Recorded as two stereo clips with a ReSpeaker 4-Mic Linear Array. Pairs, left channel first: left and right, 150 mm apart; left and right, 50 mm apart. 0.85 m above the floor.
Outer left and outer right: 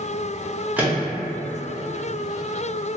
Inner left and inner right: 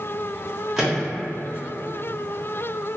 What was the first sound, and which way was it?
A microwave, 10° right (ahead or behind).